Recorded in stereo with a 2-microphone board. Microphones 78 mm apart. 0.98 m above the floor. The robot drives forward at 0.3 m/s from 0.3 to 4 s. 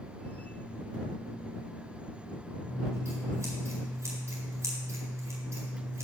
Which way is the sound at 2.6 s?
40° right (ahead or behind).